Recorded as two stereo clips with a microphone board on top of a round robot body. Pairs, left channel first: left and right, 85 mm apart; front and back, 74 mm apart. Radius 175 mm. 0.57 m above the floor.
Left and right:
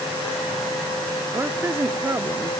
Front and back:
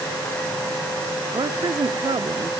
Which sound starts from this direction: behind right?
A woman speaking, at 1.3 s.